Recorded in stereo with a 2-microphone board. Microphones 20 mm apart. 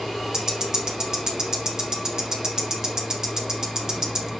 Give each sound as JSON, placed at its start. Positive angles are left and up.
{"t": 0.3, "sound": "ticking", "side_deg": -35, "distance_m": 0.7}